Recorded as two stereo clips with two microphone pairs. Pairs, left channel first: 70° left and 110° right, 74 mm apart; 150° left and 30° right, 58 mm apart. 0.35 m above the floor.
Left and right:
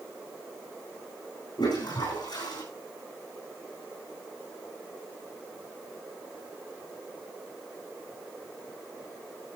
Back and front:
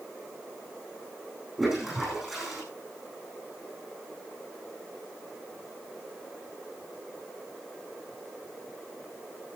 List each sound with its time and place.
1.6 s a toilet flushing: 55° left, 8.5 m